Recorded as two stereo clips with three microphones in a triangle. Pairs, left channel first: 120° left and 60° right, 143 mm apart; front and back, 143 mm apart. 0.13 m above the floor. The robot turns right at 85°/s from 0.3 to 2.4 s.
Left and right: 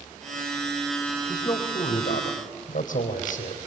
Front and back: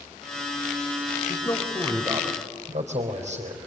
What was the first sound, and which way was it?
A man speaking, 50° left.